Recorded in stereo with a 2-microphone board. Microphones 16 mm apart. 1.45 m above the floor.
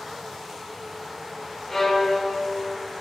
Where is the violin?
25° left (ahead or behind), 1.5 m.